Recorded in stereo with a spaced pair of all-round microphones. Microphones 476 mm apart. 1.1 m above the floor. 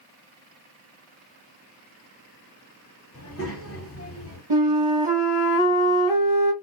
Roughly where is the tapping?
No tapping in this recording.